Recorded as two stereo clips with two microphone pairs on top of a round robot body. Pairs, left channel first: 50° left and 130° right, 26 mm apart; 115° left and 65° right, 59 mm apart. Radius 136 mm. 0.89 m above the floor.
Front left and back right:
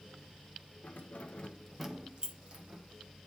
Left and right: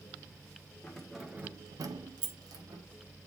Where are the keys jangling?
40° left, 1.0 m; by 2.8 s 85° right, 1.5 m.